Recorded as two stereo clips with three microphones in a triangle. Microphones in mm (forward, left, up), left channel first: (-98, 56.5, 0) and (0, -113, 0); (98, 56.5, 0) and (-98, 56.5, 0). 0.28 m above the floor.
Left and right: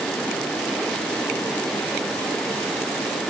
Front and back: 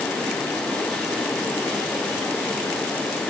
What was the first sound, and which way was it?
Only background noise.